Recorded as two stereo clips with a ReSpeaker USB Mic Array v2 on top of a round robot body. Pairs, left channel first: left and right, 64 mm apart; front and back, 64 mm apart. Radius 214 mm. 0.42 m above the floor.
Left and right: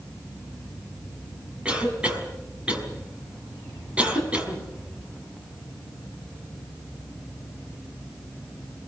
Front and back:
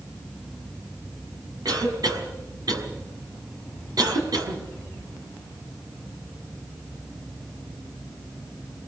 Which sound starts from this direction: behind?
A cough, at 1.6 s.